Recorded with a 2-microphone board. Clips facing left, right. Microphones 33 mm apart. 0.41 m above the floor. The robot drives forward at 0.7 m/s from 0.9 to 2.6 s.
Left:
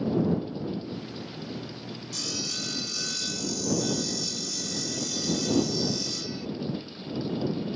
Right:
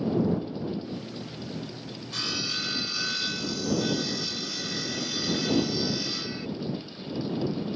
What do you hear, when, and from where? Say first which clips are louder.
2.1 s sawing: right 4 dB; 40° right (ahead or behind); by 6.5 s 30° right (ahead or behind)